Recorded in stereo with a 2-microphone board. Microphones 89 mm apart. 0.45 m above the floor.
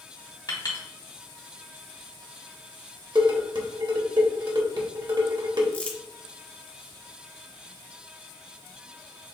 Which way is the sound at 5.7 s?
15° left (ahead or behind).